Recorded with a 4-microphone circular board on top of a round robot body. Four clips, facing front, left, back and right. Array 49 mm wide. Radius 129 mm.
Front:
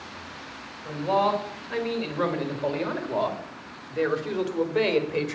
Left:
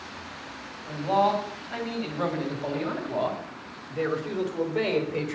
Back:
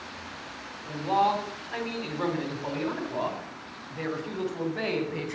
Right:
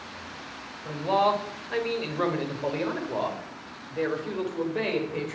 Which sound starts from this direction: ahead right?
A man speaking, at 0.8 s.